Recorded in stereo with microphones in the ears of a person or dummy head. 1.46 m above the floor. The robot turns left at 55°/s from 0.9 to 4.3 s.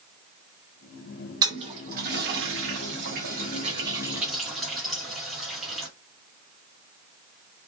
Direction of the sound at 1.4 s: 20° right (ahead or behind).